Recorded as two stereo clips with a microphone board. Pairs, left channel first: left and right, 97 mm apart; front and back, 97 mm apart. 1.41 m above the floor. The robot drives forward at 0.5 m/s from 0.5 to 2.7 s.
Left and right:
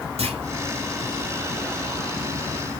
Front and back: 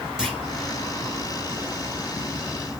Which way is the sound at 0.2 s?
95° right.